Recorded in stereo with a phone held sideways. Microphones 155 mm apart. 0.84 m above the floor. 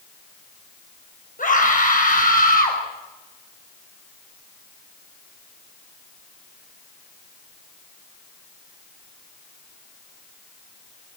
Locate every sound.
1.4 s a scream: 60° left (ahead or behind), 5.5 m; by 2.8 s 70° left (ahead or behind), 5 m